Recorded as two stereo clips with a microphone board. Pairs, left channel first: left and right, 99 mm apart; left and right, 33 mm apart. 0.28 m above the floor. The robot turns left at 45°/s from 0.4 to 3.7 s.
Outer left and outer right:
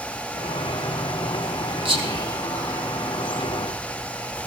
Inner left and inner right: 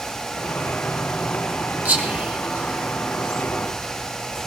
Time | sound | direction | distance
1.9 | whispering | 65° right (ahead or behind) | 3 m